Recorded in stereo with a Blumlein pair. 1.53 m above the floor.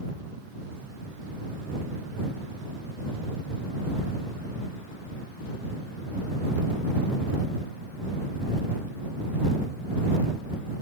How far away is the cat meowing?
No cat meowing in this recording.